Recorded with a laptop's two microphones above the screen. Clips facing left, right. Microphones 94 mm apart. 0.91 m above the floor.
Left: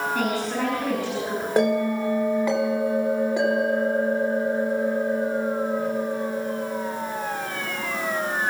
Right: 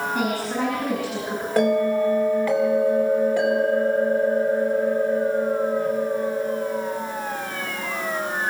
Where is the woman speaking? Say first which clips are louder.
Right 1 dB; 5° right (ahead or behind), 6 m.